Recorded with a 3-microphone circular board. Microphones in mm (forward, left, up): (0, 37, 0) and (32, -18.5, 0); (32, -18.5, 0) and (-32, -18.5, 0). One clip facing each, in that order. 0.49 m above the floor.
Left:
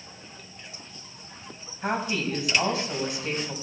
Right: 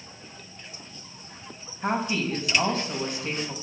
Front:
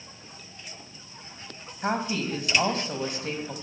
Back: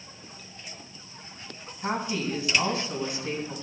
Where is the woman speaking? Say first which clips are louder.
Right 1 dB, front 1 dB; 35° left, 3.5 m.